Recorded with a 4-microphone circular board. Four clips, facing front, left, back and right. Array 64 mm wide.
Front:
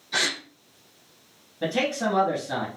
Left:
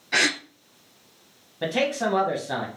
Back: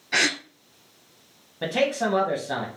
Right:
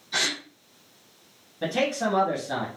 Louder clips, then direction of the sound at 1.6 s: Left 1 dB, back 2 dB; 135° left.